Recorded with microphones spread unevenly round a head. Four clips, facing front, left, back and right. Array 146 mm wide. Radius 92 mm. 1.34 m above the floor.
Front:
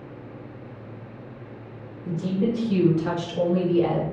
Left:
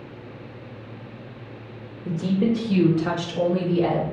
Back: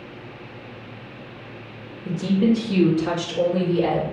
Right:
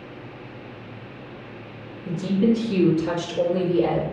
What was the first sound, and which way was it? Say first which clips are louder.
A woman speaking: right 2 dB, back 5 dB; 140° left.